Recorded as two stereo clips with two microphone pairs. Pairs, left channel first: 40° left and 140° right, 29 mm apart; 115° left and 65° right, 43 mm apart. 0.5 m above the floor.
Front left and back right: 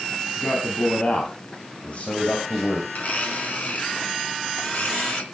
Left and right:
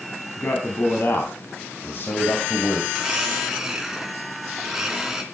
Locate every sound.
0.4 s a man speaking: 80° left, 3.5 m; by 2.8 s 85° left, 2 m
2.9 s a blender: 15° left, 3 m